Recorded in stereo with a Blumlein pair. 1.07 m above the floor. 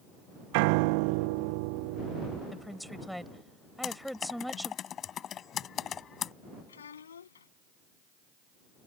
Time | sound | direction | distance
0.5 | a piano | 45° right | ?
2.5 | a woman speaking | straight ahead | ?
3.8 | typing on a keyboard | 25° left | ?
6.7 | a child speaking | 70° left | ?